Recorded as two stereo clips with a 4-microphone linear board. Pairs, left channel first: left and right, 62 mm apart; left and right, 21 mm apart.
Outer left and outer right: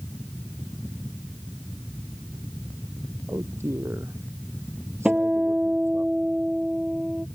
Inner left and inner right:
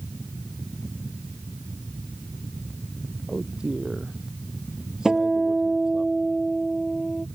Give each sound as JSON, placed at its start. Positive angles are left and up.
{"t": 3.3, "sound": "a man speaking", "side_deg": -45}
{"t": 5.0, "sound": "a guitar", "side_deg": -20}